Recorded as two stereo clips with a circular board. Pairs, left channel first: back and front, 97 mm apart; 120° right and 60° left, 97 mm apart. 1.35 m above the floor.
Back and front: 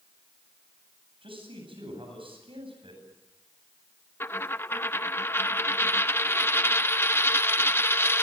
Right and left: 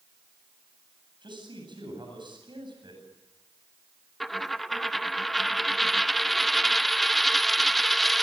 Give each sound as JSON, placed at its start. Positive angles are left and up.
{"t": 1.2, "sound": "a man speaking", "azimuth_deg": 20, "distance_m": 9.0}
{"t": 4.2, "sound": "a dropped coin", "azimuth_deg": 150, "distance_m": 0.6}